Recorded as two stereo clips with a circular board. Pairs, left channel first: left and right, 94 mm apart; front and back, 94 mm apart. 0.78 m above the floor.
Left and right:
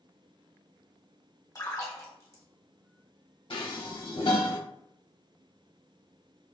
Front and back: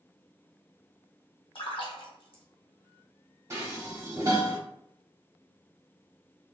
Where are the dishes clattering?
115° left, 1.1 m.